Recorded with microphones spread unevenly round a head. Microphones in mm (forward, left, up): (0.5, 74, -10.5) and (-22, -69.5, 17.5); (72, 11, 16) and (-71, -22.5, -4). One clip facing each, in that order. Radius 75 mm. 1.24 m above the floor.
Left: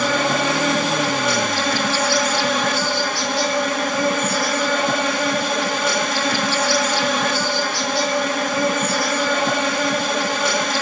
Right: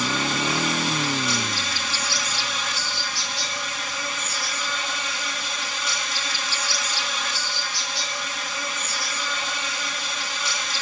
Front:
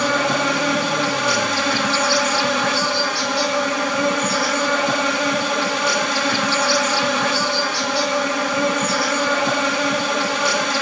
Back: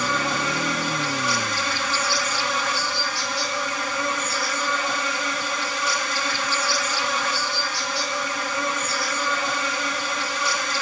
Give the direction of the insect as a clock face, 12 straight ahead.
10 o'clock.